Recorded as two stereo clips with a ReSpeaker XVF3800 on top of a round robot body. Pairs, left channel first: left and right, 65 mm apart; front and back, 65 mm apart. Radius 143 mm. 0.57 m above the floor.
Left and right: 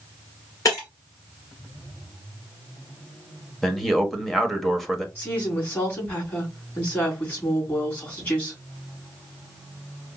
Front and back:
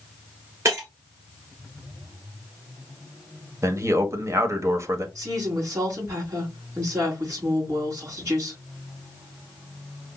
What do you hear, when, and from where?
0.7 s breaking glass: 135° left, 2.5 m
3.6 s a man speaking: 175° left, 1.1 m
5.2 s a woman speaking: 150° left, 3 m